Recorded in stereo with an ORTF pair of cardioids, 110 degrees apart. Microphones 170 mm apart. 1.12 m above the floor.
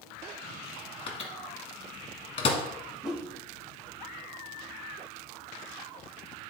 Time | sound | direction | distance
1.1 | a microwave | 35° left | 1.3 m
3.0 | a whoosh | 5° right | 1.1 m